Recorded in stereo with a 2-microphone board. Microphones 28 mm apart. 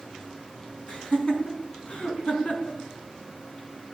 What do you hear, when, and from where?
0.9 s laughter: 40° left (ahead or behind), 4 m; by 2.8 s 55° left (ahead or behind), 5 m